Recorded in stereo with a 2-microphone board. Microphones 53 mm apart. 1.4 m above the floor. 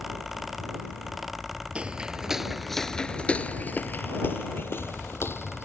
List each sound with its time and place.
1.8 s footsteps: 20° right (ahead or behind); by 5.7 s 50° left (ahead or behind)